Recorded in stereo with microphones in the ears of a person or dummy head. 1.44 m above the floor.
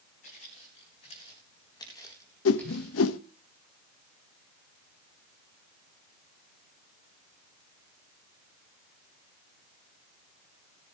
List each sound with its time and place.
0.2 s footsteps: 45° left (ahead or behind), 5 m; by 3.1 s 5° right (ahead or behind), 3.5 m
2.5 s a whoosh: 70° left (ahead or behind), 0.9 m